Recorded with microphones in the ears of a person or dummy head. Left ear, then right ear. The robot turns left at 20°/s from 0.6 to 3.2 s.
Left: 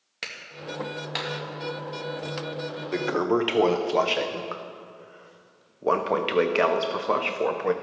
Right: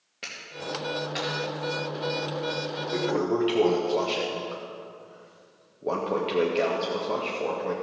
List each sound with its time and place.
0.2 s a clap: 50° left (ahead or behind), 2 m; by 1.3 s 40° left (ahead or behind), 2 m
2.9 s a toilet flushing: 35° left (ahead or behind), 0.7 m; by 7.7 s 40° left (ahead or behind), 0.7 m